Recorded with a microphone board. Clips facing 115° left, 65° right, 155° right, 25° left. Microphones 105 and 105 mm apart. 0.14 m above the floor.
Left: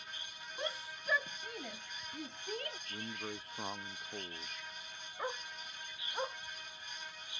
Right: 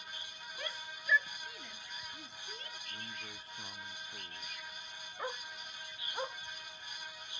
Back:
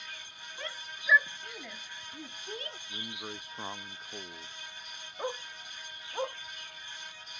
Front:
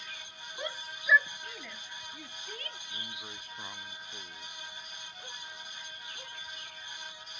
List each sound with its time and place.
0.6 s a shout: 70° left; by 2.8 s 135° left
2.9 s a man speaking: 145° left
5.2 s a dog barking: 160° right